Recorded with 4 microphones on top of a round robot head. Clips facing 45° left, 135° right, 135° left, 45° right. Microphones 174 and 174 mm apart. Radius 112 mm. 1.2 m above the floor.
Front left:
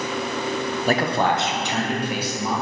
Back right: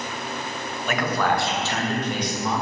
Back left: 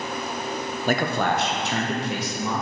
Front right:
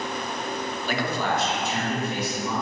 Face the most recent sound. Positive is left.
turn(degrees=130)